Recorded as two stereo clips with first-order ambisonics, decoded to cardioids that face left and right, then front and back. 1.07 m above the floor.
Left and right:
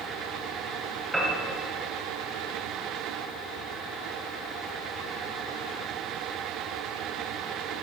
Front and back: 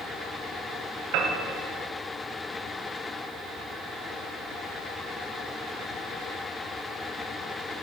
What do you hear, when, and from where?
1.1 s a piano: 170° right, 2 m